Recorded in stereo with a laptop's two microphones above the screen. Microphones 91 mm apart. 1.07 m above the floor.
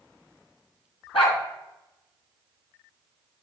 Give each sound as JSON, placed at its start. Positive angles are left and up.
{"t": 1.1, "sound": "a dog barking", "side_deg": 70, "distance_m": 2.0}